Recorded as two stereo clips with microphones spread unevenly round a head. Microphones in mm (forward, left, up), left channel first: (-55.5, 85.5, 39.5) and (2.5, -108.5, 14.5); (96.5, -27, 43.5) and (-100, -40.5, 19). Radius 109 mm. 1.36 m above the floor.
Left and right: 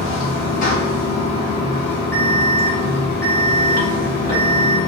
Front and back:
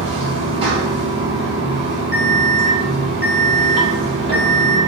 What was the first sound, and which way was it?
Running water, 120° left.